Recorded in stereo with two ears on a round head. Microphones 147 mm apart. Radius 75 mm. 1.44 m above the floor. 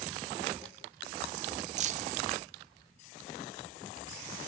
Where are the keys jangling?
45° right (ahead or behind), 0.5 m.